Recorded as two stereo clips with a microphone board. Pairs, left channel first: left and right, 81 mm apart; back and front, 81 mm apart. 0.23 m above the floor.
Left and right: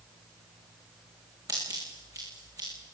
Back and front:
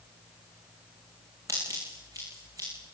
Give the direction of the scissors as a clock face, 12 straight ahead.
2 o'clock.